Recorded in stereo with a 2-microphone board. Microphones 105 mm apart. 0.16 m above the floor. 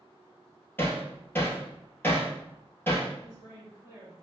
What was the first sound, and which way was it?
Hammering, 20° left (ahead or behind).